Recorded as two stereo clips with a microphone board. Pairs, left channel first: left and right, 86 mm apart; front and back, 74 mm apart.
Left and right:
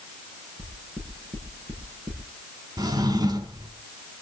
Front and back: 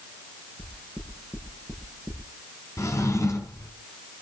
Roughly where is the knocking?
Right.